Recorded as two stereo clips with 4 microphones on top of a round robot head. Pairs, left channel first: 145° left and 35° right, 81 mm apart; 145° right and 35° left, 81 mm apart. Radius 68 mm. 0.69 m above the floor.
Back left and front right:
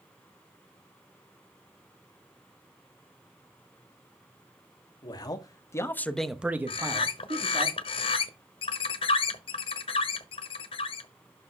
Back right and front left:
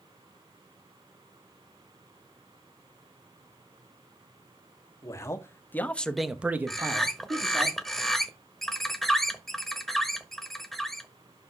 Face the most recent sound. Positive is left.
turn(degrees=130)